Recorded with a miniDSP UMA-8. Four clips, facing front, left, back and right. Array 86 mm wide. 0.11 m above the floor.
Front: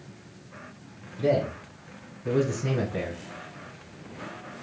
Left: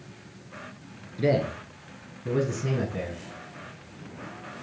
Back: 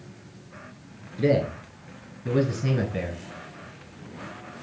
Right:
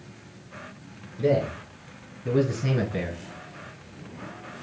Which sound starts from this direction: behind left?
A man speaking, at 1.2 s.